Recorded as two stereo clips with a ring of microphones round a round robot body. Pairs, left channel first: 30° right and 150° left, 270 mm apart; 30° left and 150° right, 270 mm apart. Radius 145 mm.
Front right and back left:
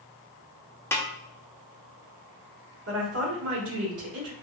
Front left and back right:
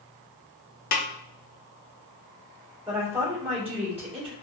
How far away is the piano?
I don't hear a piano.